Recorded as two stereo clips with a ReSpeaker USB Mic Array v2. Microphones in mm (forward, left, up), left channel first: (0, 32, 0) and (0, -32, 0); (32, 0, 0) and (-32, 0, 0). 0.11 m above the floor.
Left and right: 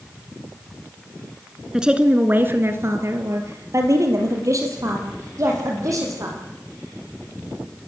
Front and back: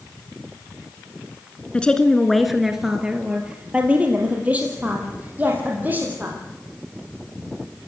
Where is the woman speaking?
25° right, 1.7 m; by 6.4 s 120° right, 6.5 m.